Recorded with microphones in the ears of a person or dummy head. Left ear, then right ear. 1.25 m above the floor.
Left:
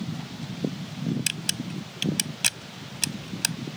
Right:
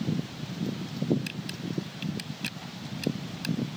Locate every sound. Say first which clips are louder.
1.3 s a camera shutter: left 7 dB; 40° left (ahead or behind)